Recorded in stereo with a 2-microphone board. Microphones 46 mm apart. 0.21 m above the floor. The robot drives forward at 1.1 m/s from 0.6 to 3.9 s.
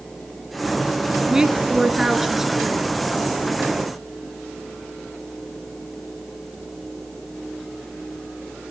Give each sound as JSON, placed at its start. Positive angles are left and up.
{"t": 1.3, "sound": "a woman speaking", "side_deg": -15, "distance_m": 1.4}